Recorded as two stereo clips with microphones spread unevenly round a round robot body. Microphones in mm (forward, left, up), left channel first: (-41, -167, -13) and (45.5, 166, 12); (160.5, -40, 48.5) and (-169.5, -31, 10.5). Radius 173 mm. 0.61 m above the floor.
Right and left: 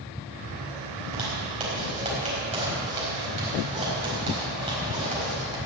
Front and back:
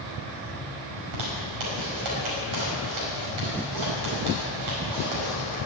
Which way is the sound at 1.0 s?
150° left.